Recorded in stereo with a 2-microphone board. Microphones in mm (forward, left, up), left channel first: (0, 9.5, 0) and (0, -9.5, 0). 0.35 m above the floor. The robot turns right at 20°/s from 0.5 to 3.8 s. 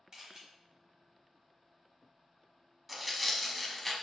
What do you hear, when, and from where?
0.1 s a camera shutter: 30° right (ahead or behind), 1.0 m
2.9 s tearing paper: 5° right (ahead or behind), 0.6 m; by 3.9 s 15° left (ahead or behind), 0.6 m